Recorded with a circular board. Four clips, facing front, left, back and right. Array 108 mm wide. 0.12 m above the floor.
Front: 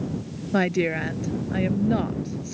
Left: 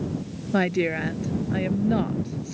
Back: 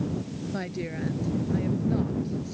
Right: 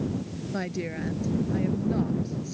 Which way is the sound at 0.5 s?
40° left.